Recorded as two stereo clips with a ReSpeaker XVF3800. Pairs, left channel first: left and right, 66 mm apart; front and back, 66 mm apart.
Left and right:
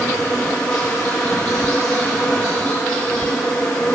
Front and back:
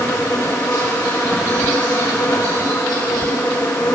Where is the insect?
10° left, 9 m.